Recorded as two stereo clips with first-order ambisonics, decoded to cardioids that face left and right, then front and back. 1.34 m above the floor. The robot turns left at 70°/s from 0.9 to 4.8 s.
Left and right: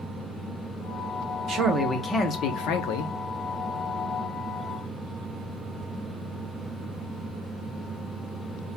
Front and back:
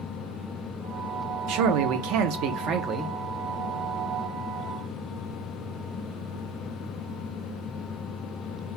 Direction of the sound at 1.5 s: 145° right.